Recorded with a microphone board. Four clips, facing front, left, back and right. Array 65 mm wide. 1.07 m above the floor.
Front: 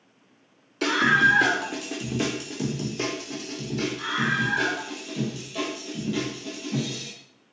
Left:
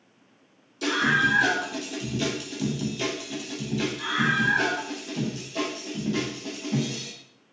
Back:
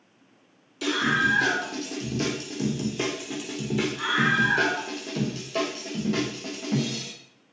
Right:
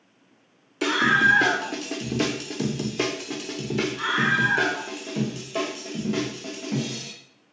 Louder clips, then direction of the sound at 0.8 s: Right 3 dB, front 4 dB; 50° right.